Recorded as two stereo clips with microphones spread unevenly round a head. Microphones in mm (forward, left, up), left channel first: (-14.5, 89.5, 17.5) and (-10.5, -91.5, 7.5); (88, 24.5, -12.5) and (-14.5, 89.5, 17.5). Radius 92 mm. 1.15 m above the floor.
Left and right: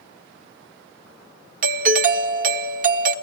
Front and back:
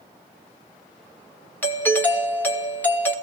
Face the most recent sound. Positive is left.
turn(degrees=-90)